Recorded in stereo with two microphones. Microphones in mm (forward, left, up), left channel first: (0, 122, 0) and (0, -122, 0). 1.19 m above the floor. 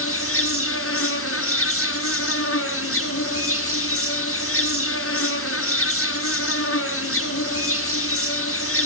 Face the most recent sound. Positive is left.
turn(degrees=65)  # may be behind; listen again after turning